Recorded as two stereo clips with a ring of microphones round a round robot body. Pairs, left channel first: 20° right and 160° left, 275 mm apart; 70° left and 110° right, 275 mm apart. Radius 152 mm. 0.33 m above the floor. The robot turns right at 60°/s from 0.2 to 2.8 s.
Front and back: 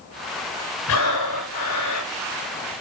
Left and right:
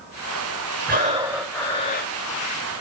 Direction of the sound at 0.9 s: 60° right.